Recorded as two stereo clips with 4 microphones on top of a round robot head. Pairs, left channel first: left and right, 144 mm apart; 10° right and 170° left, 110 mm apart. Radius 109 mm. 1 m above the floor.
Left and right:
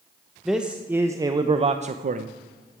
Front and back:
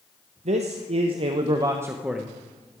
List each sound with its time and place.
0.5 s a man speaking: straight behind, 1.0 m; by 2.4 s 95° right, 0.7 m